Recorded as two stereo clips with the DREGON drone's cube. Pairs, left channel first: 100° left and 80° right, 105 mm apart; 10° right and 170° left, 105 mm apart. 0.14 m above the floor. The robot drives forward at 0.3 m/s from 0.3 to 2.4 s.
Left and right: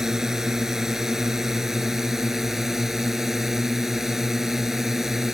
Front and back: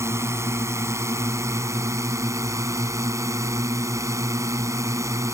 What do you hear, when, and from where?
0.0 s a drone: 160° right; by 5.3 s 165° right